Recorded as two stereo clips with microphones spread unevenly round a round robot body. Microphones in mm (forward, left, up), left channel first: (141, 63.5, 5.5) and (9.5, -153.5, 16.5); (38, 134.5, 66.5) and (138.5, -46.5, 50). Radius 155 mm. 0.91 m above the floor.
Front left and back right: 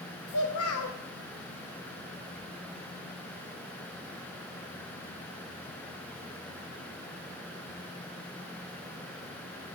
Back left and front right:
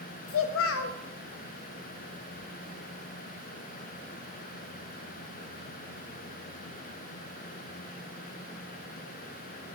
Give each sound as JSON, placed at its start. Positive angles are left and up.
{"t": 0.3, "sound": "a child speaking", "azimuth_deg": 100, "distance_m": 0.7}